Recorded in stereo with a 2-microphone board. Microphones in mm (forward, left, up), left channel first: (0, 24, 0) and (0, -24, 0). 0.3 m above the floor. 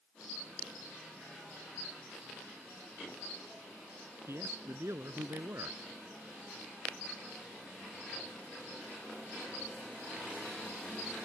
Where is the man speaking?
65° right (ahead or behind).